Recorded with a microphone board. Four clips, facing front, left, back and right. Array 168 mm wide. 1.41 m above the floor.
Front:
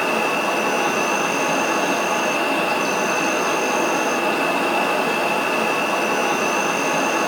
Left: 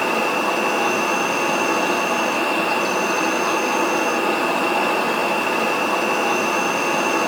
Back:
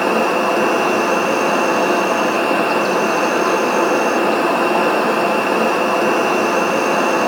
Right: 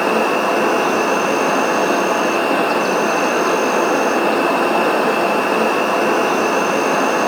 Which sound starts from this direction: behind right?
An insect, at 0.0 s.